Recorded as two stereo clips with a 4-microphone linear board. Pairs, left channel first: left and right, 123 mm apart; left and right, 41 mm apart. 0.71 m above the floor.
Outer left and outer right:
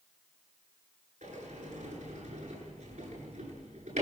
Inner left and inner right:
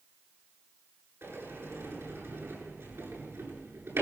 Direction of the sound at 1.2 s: 80° right.